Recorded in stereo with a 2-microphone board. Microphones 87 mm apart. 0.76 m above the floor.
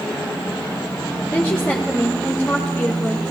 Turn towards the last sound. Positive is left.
turn(degrees=25)  # may be behind; listen again after turning